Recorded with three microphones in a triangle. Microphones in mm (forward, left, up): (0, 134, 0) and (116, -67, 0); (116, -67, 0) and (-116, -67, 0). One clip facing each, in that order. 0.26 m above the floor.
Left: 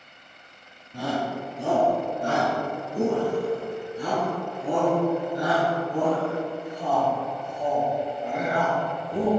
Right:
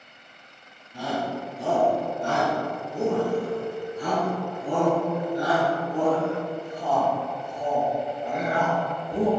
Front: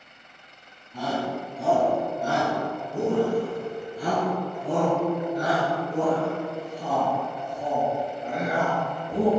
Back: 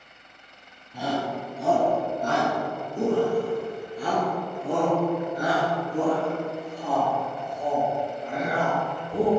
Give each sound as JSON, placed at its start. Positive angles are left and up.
{"t": 0.9, "sound": "a shout", "azimuth_deg": 105, "distance_m": 1.9}